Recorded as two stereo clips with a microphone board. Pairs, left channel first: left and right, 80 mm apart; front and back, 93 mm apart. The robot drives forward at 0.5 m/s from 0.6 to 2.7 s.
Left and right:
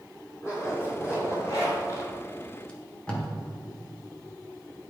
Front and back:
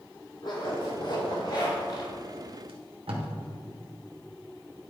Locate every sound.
0.4 s a zipper: 35° left, 2.5 m; by 2.1 s 45° left, 2.0 m
2.7 s tape being pulled: 165° left, 1.4 m